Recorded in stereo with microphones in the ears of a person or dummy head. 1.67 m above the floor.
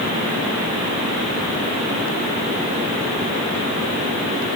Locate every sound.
Only background noise.